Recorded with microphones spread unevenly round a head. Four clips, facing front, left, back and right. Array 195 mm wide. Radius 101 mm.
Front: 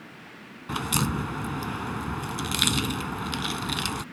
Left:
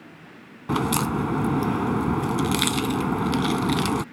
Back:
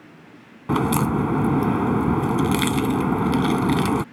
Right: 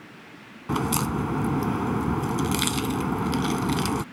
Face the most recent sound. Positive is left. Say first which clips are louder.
# left 2 dB, back 8 dB
turn(degrees=170)